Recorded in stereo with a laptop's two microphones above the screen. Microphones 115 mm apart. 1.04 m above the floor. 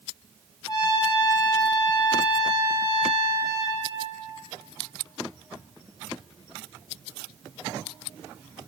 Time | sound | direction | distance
0.7 | a trumpet | 35° left (ahead or behind) | 2.5 m